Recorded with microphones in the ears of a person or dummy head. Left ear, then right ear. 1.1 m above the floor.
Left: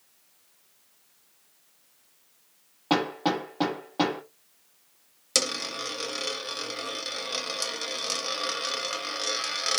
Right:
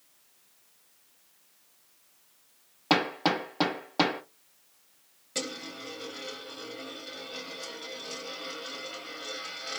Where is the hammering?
20° right (ahead or behind), 0.9 m.